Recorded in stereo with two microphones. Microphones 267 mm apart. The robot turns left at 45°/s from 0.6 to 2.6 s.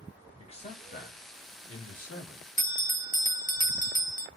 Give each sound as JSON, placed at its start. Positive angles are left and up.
{"t": 0.4, "sound": "a man speaking", "azimuth_deg": 150, "distance_m": 2.5}
{"t": 2.6, "sound": "a bell", "side_deg": 30, "distance_m": 0.6}